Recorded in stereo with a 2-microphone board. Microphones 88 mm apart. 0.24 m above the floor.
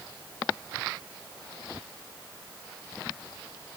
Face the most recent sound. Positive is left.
No sound to turn to.